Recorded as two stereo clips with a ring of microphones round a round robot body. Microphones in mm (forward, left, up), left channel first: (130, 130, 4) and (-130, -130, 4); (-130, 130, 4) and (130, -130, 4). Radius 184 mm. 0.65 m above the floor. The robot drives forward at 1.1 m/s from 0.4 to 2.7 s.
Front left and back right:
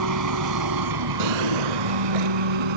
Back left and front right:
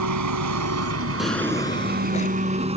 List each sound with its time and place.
0.0 s an engine running: 90° right; by 2.8 s 120° right
1.2 s a drawer: 135° right; by 2.4 s 155° right